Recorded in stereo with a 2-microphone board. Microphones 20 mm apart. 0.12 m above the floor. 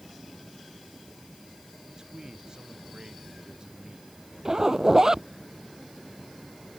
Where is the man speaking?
40° right (ahead or behind).